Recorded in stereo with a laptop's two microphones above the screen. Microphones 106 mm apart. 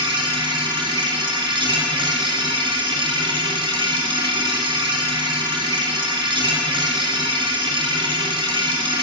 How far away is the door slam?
No door slam in this recording.